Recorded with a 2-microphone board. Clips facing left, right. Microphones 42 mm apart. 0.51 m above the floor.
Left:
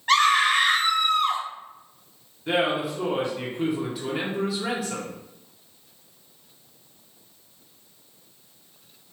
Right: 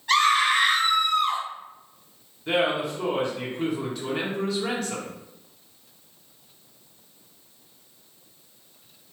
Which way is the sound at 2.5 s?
5° left (ahead or behind).